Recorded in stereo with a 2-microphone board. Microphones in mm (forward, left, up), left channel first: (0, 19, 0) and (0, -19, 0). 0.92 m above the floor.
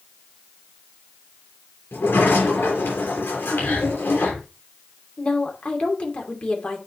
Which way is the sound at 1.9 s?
85° left.